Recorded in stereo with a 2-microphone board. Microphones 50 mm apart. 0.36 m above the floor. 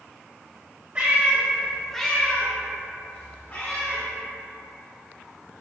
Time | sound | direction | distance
0.9 | a cat meowing | 25° right (ahead or behind) | 0.8 m